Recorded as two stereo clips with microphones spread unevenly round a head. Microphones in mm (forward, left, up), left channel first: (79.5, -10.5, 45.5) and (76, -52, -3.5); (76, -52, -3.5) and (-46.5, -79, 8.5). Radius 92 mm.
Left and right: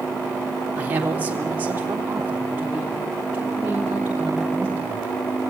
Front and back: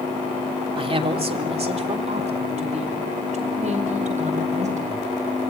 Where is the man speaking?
125° right, 3.5 m; by 5.1 s 145° right, 7.5 m.